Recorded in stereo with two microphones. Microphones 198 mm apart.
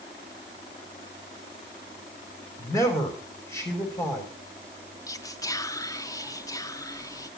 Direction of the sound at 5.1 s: 15° left (ahead or behind).